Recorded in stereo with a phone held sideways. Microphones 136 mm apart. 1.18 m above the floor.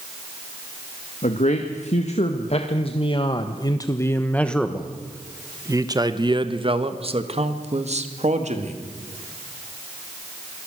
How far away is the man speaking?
About 2 m.